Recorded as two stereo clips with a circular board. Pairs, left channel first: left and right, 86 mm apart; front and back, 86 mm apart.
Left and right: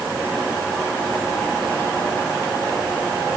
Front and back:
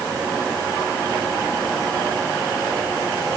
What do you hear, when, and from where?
Only background noise.